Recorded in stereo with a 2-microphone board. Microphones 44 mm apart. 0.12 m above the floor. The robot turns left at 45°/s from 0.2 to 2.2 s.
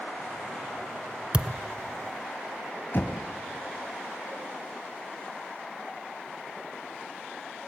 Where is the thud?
25° right (ahead or behind), 0.6 m.